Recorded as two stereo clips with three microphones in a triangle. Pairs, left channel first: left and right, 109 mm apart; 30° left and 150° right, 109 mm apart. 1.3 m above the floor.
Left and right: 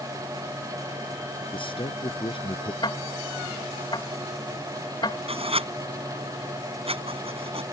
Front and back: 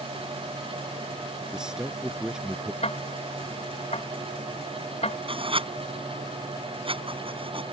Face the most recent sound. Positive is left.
turn(degrees=-115)